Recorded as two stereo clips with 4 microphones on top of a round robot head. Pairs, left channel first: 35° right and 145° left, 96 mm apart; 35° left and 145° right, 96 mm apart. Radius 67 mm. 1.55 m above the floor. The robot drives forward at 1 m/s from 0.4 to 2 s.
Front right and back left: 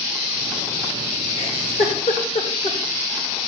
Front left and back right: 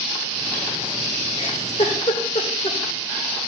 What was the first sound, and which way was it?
A giggle, 5° right.